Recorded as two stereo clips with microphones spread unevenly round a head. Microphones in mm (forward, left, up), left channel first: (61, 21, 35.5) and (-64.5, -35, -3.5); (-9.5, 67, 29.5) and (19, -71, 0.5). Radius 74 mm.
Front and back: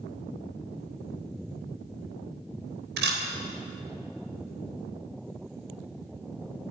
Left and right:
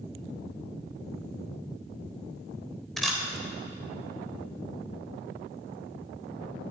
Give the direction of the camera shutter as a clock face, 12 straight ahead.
6 o'clock.